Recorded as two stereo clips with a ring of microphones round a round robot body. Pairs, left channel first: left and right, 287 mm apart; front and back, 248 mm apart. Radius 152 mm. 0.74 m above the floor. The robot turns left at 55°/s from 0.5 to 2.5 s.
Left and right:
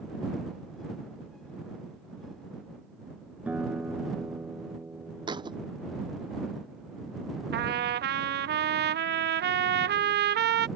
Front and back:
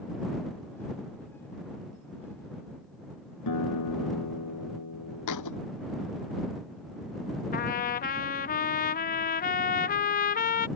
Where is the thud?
15° right.